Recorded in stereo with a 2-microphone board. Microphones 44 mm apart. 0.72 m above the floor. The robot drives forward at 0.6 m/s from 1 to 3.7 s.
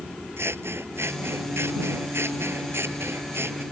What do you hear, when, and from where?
0.4 s scissors: 85° right